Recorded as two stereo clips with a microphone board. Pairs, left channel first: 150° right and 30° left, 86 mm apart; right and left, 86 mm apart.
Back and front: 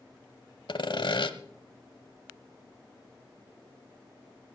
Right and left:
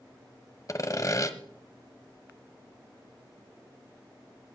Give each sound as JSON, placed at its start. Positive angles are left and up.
{"t": 0.7, "sound": "sawing", "azimuth_deg": -135, "distance_m": 1.0}